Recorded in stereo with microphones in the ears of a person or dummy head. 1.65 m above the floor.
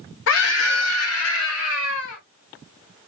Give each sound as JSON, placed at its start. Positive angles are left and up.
{"t": 0.3, "sound": "a scream", "side_deg": 65, "distance_m": 1.0}